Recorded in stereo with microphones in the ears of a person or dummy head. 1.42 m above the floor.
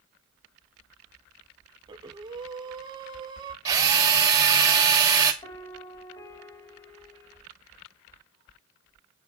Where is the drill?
20° right (ahead or behind), 2 m.